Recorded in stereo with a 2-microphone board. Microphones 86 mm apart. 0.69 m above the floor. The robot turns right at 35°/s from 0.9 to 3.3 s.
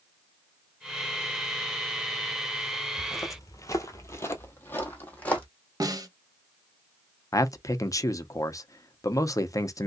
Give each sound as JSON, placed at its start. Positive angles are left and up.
{"t": 3.0, "sound": "footsteps", "side_deg": 30, "distance_m": 0.9}
{"t": 5.8, "sound": "a snare drum", "side_deg": -45, "distance_m": 0.8}
{"t": 7.3, "sound": "a man speaking", "side_deg": 40, "distance_m": 0.6}